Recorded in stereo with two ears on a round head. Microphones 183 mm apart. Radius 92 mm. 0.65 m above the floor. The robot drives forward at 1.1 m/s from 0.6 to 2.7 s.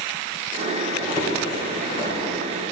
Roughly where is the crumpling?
Left.